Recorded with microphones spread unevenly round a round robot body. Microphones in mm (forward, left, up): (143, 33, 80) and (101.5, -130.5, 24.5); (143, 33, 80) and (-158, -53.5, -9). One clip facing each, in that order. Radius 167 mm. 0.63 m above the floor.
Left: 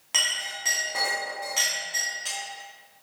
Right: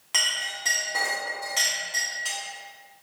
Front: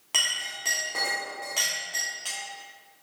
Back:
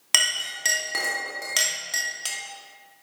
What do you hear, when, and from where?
0.1 s a clink: 175° left, 0.9 m